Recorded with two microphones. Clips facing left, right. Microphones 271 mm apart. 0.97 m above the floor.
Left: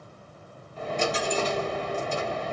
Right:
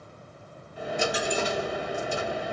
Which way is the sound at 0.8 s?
10° right (ahead or behind).